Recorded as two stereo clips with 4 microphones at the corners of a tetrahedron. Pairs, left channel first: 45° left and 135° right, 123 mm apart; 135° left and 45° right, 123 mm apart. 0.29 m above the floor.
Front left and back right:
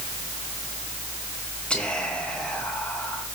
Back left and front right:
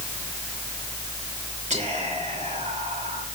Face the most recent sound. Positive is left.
turn(degrees=-35)